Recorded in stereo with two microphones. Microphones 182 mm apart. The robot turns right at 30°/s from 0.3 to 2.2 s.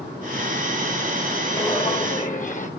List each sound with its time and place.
1.6 s footsteps: 25° left (ahead or behind), 3 m; by 2.7 s 45° left (ahead or behind), 2.5 m